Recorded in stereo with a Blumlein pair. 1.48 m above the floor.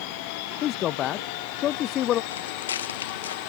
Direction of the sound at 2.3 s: 65° left.